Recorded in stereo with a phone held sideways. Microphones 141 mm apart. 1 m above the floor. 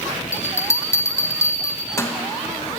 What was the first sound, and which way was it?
A bell, 20° left (ahead or behind).